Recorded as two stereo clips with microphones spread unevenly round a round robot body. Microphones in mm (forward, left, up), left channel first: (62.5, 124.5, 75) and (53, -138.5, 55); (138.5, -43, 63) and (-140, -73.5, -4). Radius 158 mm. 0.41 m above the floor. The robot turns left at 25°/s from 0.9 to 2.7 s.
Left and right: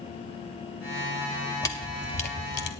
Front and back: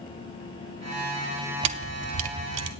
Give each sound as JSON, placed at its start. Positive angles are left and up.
{"t": 1.6, "sound": "a camera shutter", "azimuth_deg": 170, "distance_m": 0.7}